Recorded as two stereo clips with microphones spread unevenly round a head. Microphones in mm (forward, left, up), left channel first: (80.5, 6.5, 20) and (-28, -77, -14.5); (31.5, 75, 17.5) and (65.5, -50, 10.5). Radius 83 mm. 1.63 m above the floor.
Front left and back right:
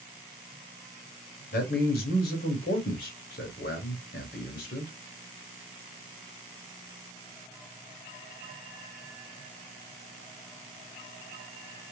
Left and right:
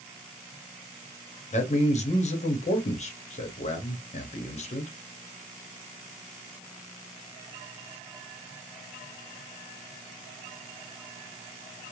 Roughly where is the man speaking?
Left.